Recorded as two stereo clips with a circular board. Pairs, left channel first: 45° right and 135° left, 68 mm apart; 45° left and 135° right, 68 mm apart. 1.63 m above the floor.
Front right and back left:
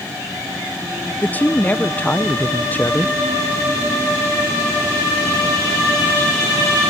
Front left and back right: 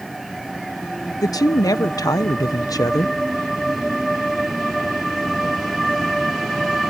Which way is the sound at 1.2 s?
20° left.